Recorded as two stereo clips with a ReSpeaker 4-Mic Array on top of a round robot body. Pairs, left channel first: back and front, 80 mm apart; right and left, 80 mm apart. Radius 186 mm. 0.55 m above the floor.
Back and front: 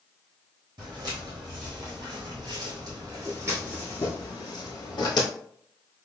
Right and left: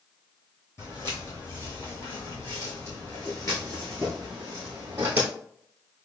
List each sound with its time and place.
0.8 s footsteps: 35° right, 1.8 m; by 5.3 s 150° left, 1.0 m